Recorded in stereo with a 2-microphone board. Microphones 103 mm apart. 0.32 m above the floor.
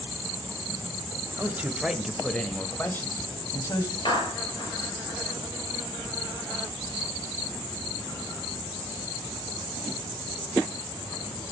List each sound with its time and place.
1.4 s a man speaking: 20° right (ahead or behind), 1.3 m; by 4.0 s 35° left (ahead or behind), 2 m
4.0 s a clap: 45° left (ahead or behind), 6 m